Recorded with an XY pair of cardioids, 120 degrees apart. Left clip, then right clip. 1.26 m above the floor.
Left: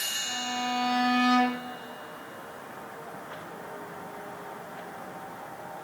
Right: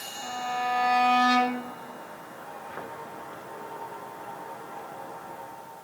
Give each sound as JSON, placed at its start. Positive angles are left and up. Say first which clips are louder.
{"t": 0.2, "sound": "a violin", "louder": "right 1 dB", "azimuth_deg": -55, "distance_m": 1.0}